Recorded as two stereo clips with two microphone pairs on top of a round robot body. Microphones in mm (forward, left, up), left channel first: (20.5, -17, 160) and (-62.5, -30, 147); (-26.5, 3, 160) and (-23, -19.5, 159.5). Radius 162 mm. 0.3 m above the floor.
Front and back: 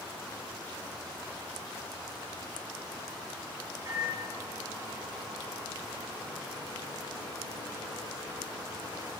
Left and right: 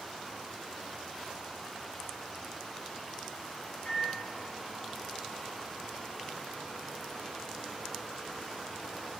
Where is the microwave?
140° left, 6 m.